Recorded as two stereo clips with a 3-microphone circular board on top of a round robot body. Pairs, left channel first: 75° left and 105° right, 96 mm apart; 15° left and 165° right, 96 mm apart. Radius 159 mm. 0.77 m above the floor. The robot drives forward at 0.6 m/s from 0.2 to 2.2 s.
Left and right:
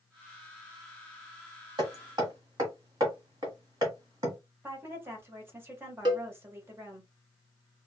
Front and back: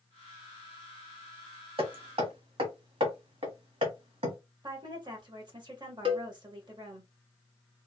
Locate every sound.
1.8 s hammering: 150° right, 1.4 m; by 4.4 s 155° right, 1.6 m
4.6 s a woman speaking: 165° right, 1.4 m
6.0 s a cowbell: 150° right, 1.7 m